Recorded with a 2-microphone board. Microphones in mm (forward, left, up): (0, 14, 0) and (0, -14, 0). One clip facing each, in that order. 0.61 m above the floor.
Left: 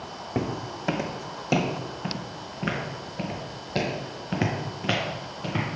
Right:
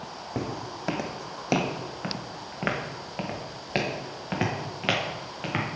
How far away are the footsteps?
About 1.4 m.